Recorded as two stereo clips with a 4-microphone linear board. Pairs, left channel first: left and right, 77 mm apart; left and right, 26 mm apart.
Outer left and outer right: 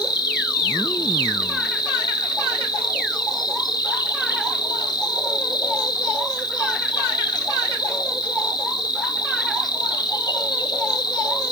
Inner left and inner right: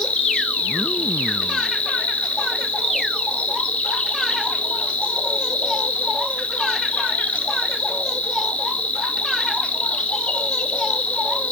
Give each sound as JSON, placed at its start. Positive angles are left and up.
{"t": 0.0, "sound": "an insect", "side_deg": 60, "distance_m": 1.5}